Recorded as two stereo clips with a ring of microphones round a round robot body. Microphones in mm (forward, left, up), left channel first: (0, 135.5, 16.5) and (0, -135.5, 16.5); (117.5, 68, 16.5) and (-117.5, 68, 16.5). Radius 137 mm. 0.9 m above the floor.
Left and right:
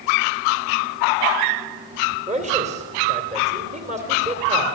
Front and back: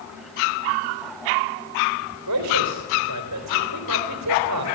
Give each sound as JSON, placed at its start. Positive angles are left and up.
{"t": 2.3, "sound": "a man speaking", "azimuth_deg": -155, "distance_m": 3.5}